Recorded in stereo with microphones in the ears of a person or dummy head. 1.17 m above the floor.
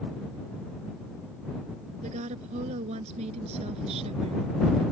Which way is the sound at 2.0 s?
40° right (ahead or behind).